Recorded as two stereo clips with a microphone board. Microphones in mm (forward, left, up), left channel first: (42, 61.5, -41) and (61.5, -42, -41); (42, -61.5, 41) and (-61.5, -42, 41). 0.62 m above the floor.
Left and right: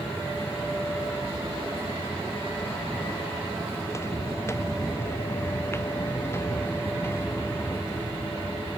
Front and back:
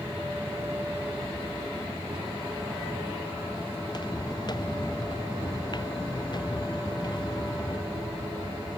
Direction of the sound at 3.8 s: 35° left.